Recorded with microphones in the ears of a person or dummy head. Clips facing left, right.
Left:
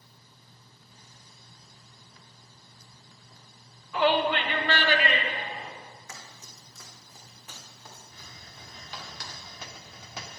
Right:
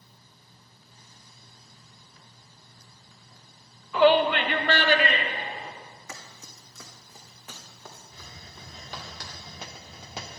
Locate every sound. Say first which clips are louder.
3.9 s a shout: right 5 dB; 85° right, 1.0 m; by 5.7 s 35° right (ahead or behind), 3.5 m
6.1 s running footsteps: right 3 dB; 65° right (ahead or behind), 3 m; by 9.0 s 45° right (ahead or behind), 5 m
8.1 s a hiss: right 3 dB; 25° right (ahead or behind), 0.8 m